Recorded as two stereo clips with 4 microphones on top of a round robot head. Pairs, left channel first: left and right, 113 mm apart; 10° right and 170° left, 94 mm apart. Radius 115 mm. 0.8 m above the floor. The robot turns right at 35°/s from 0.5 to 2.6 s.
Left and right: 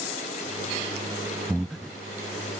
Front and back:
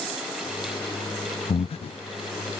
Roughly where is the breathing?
Ahead.